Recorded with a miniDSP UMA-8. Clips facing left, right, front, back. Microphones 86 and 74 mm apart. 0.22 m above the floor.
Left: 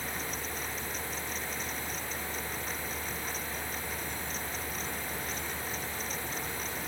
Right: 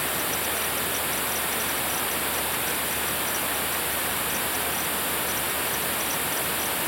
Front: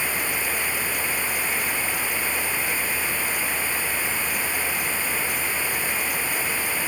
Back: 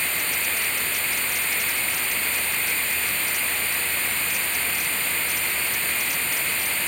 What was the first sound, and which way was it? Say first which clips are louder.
Running water: right 9 dB, front 2 dB; 80° right.